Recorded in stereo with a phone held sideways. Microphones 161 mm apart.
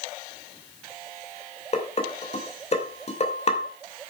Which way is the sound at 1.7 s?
40° left (ahead or behind).